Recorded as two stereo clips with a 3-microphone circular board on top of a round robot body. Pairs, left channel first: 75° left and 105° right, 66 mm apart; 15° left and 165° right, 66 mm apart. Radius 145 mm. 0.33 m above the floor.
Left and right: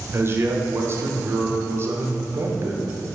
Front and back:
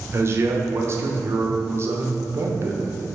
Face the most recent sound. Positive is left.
turn(degrees=-140)